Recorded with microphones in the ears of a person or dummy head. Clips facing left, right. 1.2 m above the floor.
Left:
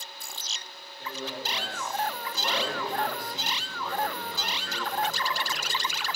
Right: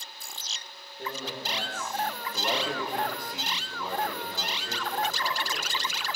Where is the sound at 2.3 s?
10° right (ahead or behind), 3 m.